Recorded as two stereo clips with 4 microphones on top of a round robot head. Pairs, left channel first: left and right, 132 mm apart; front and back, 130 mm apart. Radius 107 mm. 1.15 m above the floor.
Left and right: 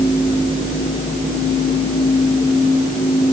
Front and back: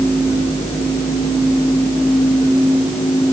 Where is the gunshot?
No gunshot in this recording.